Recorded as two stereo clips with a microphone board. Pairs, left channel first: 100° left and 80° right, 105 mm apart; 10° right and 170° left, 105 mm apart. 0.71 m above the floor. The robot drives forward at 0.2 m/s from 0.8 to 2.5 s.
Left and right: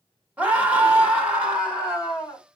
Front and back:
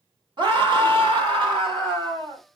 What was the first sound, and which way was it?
A scream, 155° right.